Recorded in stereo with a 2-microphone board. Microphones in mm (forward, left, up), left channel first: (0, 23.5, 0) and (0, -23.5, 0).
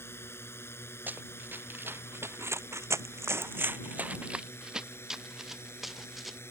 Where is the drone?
60° left (ahead or behind).